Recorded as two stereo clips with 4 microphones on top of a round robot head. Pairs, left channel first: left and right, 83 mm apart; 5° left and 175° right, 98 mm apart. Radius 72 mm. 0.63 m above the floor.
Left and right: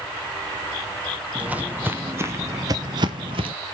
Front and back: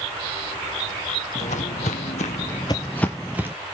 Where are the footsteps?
15° right, 1.6 m; by 3.5 s 105° right, 1.0 m.